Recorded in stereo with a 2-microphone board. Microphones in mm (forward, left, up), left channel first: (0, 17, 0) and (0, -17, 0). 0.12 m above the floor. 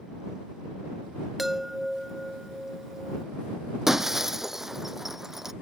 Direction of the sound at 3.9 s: 15° right (ahead or behind).